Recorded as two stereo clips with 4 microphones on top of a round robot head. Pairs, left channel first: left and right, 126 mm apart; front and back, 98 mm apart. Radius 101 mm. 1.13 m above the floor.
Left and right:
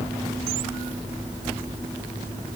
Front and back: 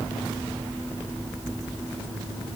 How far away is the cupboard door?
I don't hear a cupboard door.